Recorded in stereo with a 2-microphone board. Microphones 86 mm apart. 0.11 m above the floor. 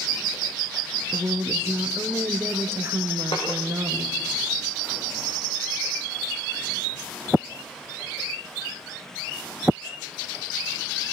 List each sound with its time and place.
1.1 s a woman speaking: 30° right (ahead or behind), 2.5 m
3.3 s a snare drum: 80° left, 8 m